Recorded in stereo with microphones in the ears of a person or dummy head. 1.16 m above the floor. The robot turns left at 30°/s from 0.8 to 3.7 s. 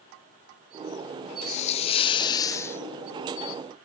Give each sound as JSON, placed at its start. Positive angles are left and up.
{"t": 1.5, "sound": "a hiss", "azimuth_deg": 60, "distance_m": 0.6}